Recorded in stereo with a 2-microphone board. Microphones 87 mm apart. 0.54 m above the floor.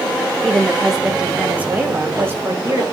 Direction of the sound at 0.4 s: 5° left (ahead or behind).